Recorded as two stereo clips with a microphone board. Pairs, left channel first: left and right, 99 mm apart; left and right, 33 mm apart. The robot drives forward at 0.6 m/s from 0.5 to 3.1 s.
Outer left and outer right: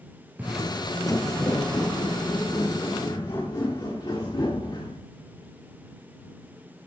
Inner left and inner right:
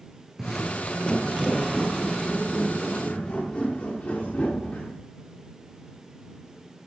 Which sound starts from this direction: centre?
Footsteps, at 0.4 s.